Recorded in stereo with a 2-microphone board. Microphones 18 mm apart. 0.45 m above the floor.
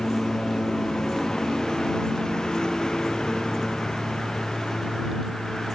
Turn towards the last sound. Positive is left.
turn(degrees=50)  # may be behind; listen again after turning